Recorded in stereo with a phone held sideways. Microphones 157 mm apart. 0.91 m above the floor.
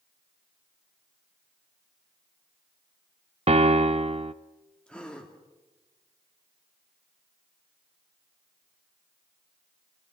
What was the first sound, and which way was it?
A piano, 40° right (ahead or behind).